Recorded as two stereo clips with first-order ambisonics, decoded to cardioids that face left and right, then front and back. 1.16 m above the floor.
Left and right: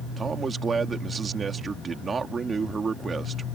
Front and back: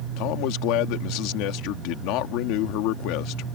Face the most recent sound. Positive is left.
turn(degrees=-20)